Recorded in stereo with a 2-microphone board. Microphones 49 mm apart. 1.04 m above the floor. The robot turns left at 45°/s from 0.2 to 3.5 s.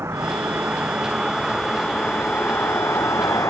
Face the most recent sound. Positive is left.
turn(degrees=90)